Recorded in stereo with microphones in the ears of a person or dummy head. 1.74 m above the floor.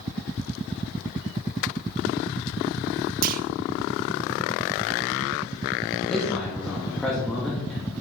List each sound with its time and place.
3.2 s a clunk: 50° right (ahead or behind), 0.6 m
6.1 s a man speaking: 5° left (ahead or behind), 2 m